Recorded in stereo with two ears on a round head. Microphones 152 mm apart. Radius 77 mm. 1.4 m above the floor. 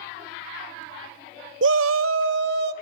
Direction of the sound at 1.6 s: 70° right (ahead or behind).